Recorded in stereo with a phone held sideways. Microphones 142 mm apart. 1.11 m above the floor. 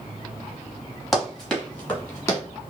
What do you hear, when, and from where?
1.1 s running footsteps: centre (ahead or behind), 1.3 m; by 2.4 s 20° left (ahead or behind), 1.2 m